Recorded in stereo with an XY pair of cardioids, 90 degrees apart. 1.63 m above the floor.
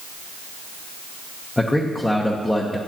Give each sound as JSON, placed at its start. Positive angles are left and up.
{"t": 1.6, "sound": "a man speaking", "azimuth_deg": 15, "distance_m": 1.0}